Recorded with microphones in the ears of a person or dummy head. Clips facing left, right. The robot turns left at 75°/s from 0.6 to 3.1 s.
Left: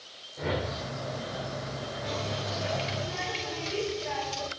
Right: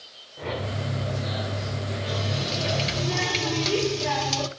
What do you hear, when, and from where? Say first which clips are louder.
0.4 s a whoosh: right 1 dB; 5° left (ahead or behind), 1.3 m; by 0.9 s 15° right (ahead or behind), 1.3 m
2.0 s a running tap: right 2 dB; 5° right, 2.5 m; by 4.5 s 85° right, 2.5 m